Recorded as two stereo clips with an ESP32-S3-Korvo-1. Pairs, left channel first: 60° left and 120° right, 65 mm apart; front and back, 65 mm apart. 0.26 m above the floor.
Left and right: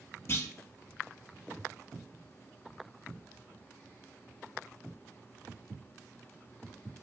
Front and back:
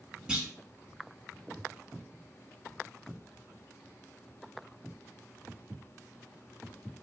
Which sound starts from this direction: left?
A clunk, at 0.3 s.